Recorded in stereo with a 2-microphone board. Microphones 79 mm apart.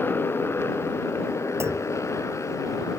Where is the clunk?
35° right (ahead or behind).